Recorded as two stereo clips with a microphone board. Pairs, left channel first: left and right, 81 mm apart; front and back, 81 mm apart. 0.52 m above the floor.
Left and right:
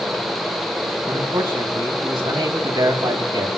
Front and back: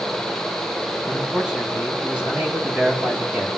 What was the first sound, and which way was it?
A man speaking, 105° right.